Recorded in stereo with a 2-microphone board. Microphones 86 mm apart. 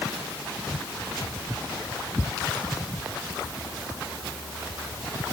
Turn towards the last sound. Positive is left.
No sound to turn to.